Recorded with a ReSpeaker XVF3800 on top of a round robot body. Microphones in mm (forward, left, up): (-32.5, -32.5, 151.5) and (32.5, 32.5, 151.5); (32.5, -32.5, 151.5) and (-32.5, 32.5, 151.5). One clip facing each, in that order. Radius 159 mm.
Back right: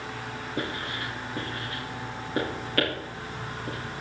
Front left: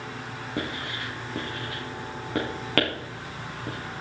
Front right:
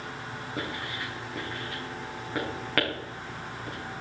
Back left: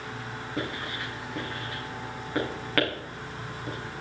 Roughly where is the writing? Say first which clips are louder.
Even, back left 2 dB; ahead left.